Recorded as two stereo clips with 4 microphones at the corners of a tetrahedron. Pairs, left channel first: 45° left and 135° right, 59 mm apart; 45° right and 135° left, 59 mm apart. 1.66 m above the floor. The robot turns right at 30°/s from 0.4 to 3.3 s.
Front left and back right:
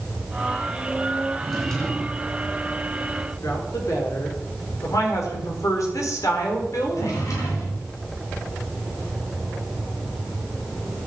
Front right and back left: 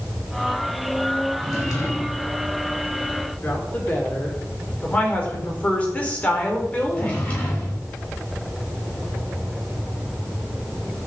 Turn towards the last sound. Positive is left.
turn(degrees=25)